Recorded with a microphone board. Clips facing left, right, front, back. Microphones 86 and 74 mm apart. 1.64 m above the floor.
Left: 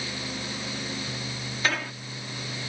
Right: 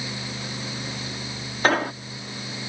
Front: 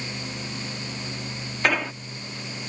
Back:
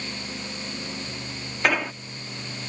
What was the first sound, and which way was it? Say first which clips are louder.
An explosion: right 8 dB, even; 90° right.